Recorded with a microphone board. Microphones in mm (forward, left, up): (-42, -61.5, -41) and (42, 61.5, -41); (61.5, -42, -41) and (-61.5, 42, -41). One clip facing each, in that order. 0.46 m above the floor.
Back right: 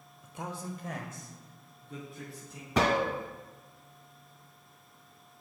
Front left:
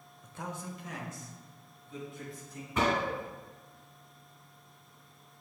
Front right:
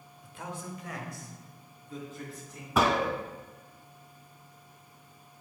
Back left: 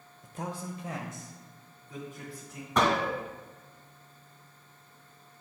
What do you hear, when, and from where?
0.2 s a man speaking: 150° left, 0.9 m; by 2.7 s 135° right, 4 m
2.8 s a gunshot: 120° right, 0.7 m